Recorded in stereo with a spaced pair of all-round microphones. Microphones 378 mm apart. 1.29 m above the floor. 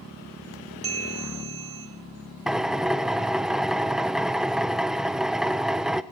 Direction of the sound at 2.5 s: Centre (ahead or behind).